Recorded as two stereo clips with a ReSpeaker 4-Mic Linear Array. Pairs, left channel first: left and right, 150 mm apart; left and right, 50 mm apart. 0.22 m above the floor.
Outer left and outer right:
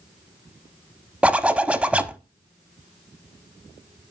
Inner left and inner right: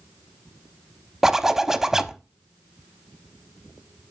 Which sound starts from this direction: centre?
A zipper, at 1.2 s.